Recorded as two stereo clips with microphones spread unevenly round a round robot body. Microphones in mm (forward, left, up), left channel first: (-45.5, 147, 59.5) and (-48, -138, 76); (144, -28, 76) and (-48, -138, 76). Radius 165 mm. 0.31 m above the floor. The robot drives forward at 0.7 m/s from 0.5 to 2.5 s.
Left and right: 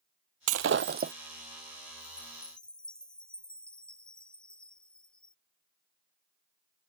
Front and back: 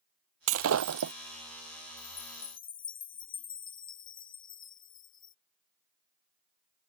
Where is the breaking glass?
130° right; by 1.1 s 150° right.